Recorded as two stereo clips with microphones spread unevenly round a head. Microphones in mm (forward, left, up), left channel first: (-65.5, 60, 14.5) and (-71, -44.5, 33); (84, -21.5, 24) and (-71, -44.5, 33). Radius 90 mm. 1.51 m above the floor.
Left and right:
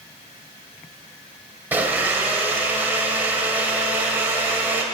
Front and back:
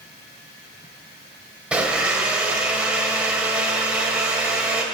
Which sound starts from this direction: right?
A blender, at 1.7 s.